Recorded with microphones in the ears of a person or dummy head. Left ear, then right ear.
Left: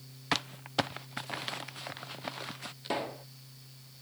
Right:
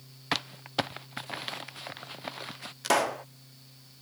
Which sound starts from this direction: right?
A pop, at 2.8 s.